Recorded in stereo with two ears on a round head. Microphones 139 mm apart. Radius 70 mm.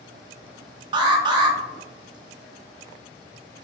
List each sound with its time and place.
0.9 s an alarm: 30° right (ahead or behind), 0.5 m